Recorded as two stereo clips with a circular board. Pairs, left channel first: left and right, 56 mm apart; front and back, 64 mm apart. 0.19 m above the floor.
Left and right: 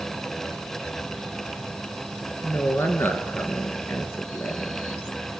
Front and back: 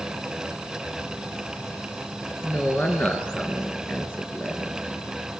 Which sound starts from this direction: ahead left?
A woman speaking, at 2.4 s.